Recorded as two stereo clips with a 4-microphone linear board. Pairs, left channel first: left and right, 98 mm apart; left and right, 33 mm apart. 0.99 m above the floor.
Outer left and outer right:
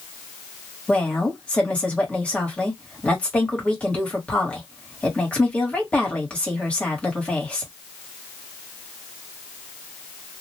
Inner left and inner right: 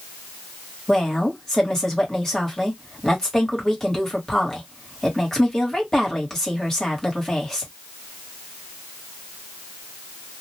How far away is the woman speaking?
About 1.4 m.